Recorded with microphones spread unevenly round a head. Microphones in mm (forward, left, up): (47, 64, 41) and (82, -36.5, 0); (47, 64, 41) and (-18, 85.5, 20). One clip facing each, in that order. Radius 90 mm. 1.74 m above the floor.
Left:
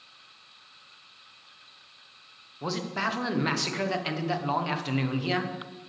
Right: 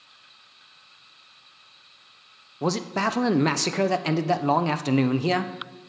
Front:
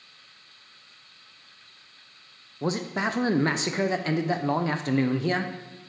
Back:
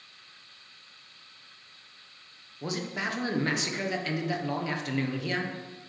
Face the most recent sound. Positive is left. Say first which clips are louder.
# right 6 dB, front 5 dB
turn(degrees=-20)